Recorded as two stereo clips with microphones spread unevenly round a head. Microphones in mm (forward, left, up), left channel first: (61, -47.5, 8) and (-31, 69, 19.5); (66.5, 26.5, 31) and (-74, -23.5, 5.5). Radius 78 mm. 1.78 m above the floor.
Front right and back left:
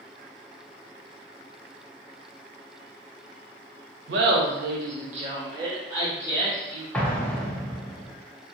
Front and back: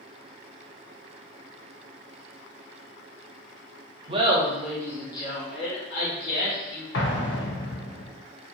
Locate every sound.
4.1 s laughter: 140° left, 0.7 m; by 6.8 s 50° left, 1.6 m
6.9 s an explosion: 30° left, 0.5 m